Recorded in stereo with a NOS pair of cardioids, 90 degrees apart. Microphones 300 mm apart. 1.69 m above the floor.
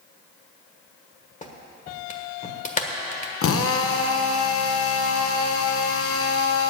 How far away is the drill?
About 1.0 m.